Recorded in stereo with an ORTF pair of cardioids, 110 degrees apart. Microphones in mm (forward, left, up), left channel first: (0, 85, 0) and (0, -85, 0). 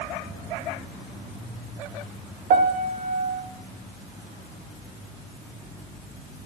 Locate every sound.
2.5 s a piano: 65° right, 0.8 m